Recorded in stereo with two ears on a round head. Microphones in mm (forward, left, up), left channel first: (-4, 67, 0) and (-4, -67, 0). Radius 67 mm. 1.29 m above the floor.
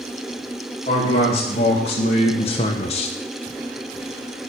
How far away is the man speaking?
About 2.0 m.